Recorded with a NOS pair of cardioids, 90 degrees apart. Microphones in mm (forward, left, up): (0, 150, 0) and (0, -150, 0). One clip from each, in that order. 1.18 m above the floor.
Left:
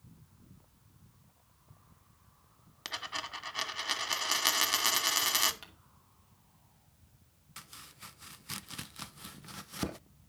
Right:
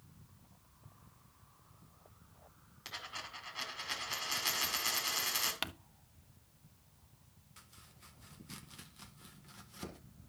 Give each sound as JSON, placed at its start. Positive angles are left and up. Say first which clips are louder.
{"t": 2.9, "sound": "a dropped coin", "louder": "left 6 dB", "azimuth_deg": 65, "distance_m": 1.7}
{"t": 5.6, "sound": "crumpling", "louder": "right 13 dB", "azimuth_deg": -70, "distance_m": 0.7}
{"t": 7.6, "sound": "chopping", "louder": "left 10 dB", "azimuth_deg": 55, "distance_m": 0.6}